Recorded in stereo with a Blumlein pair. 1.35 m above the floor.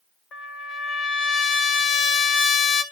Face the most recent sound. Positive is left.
turn(degrees=30)